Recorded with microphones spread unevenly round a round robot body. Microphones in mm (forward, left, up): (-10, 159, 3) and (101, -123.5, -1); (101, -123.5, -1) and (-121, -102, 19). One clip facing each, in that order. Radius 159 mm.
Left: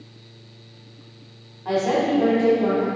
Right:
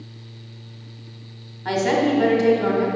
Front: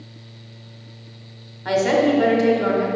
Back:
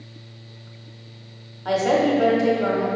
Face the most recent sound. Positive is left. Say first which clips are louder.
# right 1 dB, front 2 dB
turn(degrees=-55)